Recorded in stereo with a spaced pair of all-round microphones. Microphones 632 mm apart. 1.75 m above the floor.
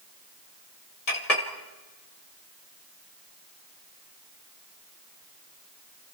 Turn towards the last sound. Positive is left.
turn(degrees=70)  # may be behind; listen again after turning